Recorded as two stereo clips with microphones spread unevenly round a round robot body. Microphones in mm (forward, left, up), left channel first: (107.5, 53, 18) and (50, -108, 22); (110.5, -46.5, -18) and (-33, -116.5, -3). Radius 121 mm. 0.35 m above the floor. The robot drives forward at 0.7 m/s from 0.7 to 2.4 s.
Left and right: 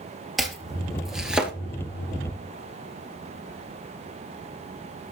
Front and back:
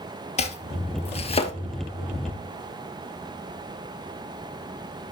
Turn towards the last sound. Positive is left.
turn(degrees=-35)